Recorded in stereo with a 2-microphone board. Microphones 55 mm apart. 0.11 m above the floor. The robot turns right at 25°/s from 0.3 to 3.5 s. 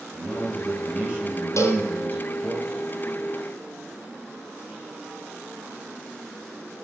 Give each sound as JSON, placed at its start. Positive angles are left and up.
{"t": 0.1, "sound": "a man speaking", "azimuth_deg": -175, "distance_m": 2.5}
{"t": 1.6, "sound": "a cowbell", "side_deg": 60, "distance_m": 0.9}